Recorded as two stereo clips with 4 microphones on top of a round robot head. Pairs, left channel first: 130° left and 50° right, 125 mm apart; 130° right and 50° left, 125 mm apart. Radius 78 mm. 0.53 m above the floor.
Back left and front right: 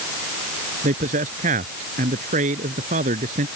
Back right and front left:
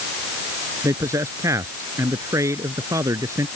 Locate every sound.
0.8 s a man speaking: 20° right